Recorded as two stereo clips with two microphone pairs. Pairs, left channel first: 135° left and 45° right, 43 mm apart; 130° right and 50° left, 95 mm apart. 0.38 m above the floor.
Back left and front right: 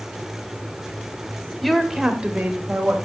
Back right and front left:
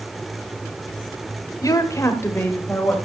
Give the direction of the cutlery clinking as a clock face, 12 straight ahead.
No cutlery clinking in this recording.